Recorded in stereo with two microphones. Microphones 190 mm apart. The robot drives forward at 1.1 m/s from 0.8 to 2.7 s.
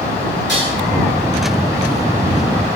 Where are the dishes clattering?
70° right (ahead or behind), 5 m.